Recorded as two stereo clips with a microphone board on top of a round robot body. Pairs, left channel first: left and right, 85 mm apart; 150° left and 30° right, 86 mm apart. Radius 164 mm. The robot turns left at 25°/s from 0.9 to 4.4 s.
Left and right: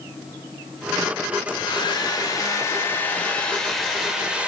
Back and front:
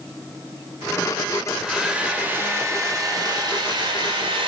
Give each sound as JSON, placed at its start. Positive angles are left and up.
{"t": 1.5, "sound": "a hair dryer", "azimuth_deg": 60, "distance_m": 0.9}